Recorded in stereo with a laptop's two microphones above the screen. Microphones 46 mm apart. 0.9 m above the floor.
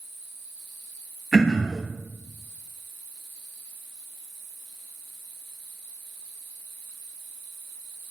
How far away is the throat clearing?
About 1.2 m.